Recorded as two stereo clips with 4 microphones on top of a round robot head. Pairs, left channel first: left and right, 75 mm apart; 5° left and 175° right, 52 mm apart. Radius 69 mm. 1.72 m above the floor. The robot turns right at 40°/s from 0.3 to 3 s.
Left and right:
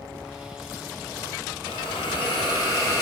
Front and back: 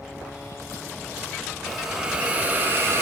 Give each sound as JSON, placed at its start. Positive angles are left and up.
{"t": 1.7, "sound": "a hiss", "azimuth_deg": 95, "distance_m": 2.0}